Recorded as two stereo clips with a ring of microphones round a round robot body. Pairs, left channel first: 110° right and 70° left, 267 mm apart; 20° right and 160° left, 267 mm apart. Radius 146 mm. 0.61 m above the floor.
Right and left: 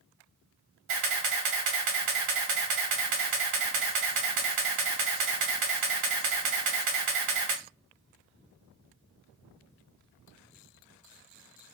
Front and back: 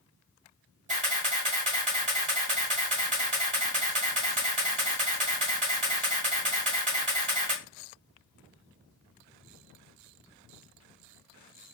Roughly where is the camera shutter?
Left.